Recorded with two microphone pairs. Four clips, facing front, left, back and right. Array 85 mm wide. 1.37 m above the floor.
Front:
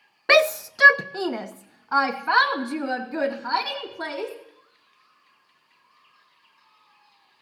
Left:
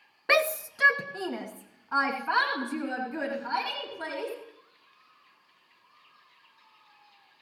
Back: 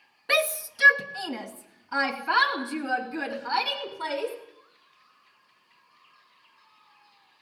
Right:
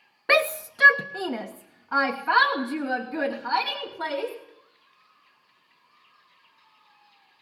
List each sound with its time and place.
0.3 s a shout: 10° right, 0.5 m; by 4.3 s 15° right, 5 m